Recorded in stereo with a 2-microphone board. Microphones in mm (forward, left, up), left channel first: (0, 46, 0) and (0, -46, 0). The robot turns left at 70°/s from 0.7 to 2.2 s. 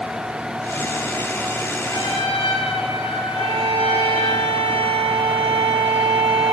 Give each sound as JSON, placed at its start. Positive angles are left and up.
{"t": 1.9, "sound": "a trumpet", "side_deg": 50, "distance_m": 10.0}
{"t": 3.3, "sound": "a violin", "side_deg": -85, "distance_m": 7.5}